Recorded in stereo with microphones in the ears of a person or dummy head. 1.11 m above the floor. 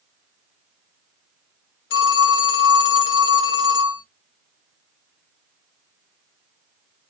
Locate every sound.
1.9 s a phone ringing: 65° left (ahead or behind), 1.5 m